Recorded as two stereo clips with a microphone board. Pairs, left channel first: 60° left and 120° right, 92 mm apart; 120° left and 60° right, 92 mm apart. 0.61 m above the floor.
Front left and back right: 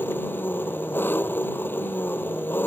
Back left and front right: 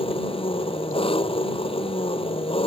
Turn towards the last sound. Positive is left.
turn(degrees=130)